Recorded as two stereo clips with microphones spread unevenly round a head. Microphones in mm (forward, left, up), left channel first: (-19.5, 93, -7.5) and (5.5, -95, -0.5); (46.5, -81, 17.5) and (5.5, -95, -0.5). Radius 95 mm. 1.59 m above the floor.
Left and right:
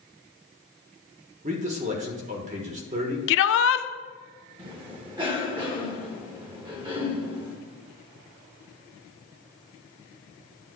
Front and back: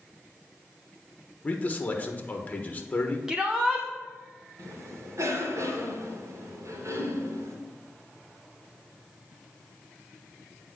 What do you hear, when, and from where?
1.4 s a man speaking: 30° right, 1.4 m
3.3 s a shout: 100° left, 0.7 m
4.6 s a cough: 150° right, 2 m